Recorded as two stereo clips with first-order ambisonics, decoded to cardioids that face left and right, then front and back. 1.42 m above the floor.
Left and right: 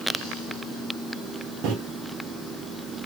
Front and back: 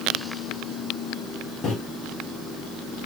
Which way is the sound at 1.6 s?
60° right.